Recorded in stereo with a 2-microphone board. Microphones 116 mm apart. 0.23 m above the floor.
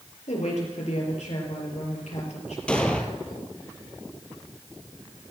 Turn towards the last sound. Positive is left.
turn(degrees=10)  # may be behind; listen again after turning